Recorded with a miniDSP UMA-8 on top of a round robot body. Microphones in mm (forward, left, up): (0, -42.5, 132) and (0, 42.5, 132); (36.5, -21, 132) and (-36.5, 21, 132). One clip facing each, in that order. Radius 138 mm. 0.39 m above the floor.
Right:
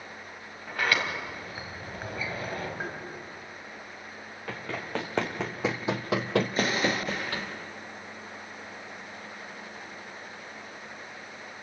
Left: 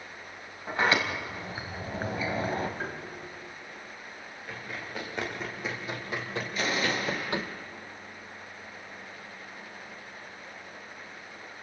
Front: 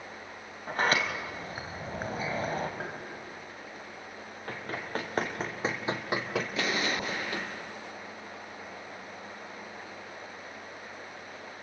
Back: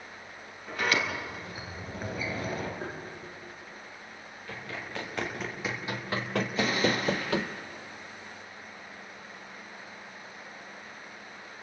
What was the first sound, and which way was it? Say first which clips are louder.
A sliding door: left 2 dB, front 2 dB; 25° left.